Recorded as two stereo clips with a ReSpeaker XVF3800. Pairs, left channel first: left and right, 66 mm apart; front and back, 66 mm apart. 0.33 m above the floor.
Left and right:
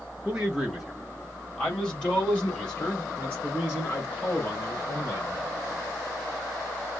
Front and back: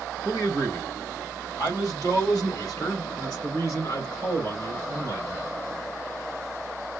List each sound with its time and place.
0.2 s a man speaking: 15° right, 1.8 m; by 5.5 s 35° left, 5 m